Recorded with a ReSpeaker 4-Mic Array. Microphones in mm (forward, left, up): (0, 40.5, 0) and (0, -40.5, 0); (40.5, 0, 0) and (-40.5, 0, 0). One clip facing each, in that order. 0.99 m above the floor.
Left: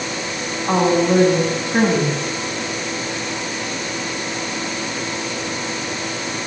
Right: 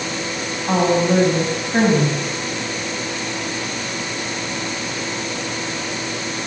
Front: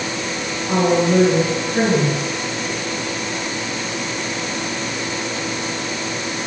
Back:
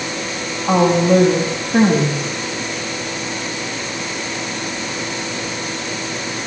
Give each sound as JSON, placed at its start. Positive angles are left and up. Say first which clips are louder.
{"t": 0.7, "sound": "a woman speaking", "louder": "left 1 dB, back 3 dB", "azimuth_deg": -170, "distance_m": 7.0}